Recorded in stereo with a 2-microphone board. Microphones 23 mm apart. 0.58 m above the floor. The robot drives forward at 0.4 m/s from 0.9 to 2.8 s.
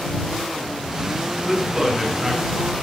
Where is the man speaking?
25° right (ahead or behind), 7 m; by 2.7 s 20° right (ahead or behind), 7.5 m.